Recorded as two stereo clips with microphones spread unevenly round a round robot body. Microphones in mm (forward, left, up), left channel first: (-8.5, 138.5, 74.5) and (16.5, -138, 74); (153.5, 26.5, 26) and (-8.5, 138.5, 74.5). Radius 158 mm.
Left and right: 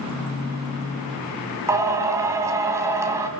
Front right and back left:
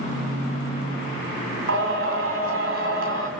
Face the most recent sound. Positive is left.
turn(degrees=-165)